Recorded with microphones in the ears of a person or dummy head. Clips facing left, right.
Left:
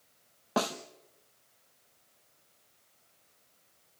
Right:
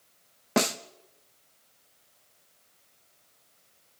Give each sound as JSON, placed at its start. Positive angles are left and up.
{"t": 0.6, "sound": "a snare drum", "side_deg": -35, "distance_m": 0.8}